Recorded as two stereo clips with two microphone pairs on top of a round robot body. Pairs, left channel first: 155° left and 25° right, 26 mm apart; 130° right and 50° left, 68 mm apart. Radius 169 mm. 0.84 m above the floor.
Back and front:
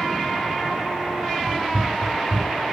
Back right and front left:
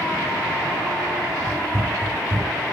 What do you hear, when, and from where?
1.5 s running footsteps: 10° right, 3 m; by 2.6 s straight ahead, 2.5 m